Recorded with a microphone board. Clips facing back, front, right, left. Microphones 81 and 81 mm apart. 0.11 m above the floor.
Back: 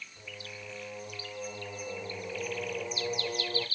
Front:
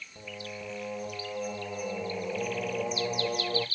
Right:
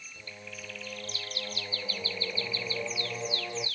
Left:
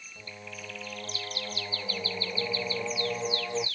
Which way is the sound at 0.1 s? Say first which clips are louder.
Front 7 dB, left 2 dB; 10° left.